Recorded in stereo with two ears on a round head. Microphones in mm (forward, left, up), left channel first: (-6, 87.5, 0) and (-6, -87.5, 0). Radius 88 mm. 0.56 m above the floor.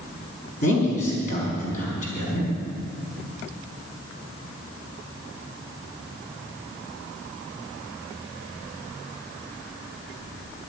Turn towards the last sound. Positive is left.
turn(degrees=40)  # may be behind; listen again after turning